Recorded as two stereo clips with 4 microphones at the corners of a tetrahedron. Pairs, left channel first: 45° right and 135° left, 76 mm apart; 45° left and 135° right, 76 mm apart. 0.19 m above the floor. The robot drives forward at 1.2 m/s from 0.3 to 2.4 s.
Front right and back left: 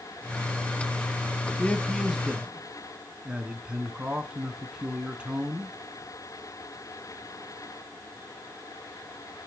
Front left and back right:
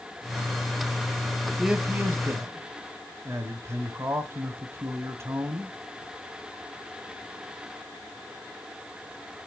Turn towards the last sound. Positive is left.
turn(degrees=-160)